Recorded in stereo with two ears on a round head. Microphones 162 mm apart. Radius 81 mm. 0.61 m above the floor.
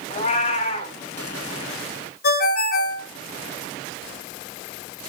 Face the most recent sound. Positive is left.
turn(degrees=55)  # may be behind; listen again after turning